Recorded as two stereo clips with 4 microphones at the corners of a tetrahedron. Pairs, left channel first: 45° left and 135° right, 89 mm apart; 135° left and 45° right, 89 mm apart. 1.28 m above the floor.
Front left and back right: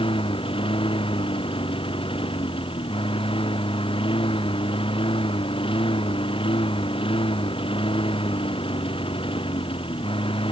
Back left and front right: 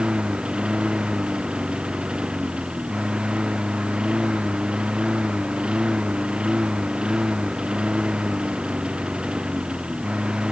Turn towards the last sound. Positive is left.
turn(degrees=35)